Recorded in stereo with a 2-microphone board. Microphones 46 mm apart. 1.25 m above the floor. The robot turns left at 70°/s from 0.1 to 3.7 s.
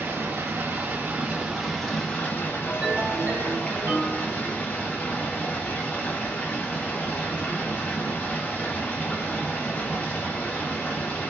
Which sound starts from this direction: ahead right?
Running water, at 0.0 s.